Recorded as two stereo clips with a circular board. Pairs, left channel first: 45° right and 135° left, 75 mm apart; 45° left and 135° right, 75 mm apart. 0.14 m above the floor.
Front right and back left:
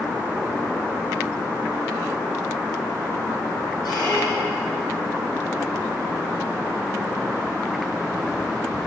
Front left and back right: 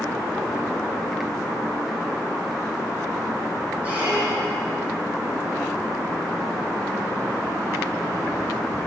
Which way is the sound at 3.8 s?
65° right.